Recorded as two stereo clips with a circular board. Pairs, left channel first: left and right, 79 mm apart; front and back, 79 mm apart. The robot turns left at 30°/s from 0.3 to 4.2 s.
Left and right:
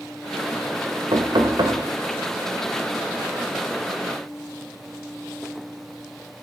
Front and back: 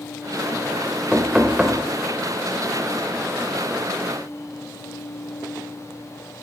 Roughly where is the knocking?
Right.